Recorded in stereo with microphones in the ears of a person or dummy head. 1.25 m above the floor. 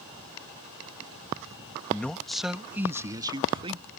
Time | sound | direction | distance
1.9 | a man speaking | 10° left (ahead or behind) | ?